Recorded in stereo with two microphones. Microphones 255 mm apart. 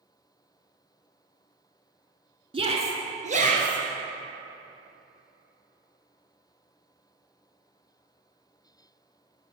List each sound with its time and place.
2.5 s a shout: 20° right (ahead or behind), 1.1 m; by 3.8 s 30° right (ahead or behind), 1.7 m